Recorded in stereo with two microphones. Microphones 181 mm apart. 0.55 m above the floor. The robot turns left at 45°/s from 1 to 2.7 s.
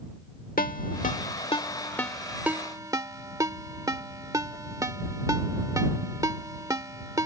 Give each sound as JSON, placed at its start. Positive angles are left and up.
{"t": 0.6, "sound": "a ringtone", "side_deg": 50}